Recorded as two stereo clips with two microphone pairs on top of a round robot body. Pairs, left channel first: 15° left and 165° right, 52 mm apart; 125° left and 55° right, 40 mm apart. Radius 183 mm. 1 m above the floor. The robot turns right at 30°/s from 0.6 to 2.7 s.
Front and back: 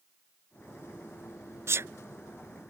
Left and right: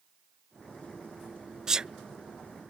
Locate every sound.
1.7 s a sneeze: 135° right; by 1.9 s 130° right